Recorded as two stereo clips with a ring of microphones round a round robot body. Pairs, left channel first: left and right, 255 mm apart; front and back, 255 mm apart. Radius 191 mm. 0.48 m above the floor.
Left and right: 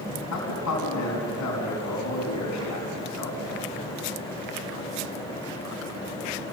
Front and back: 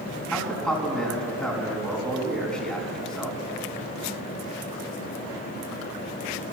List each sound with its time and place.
0.3 s a man speaking: 85° left, 5.5 m